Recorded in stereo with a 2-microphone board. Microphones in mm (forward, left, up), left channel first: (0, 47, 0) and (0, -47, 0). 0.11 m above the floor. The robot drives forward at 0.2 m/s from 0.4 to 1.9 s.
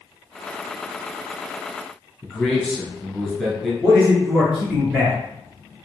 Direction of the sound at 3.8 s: 5° right (ahead or behind).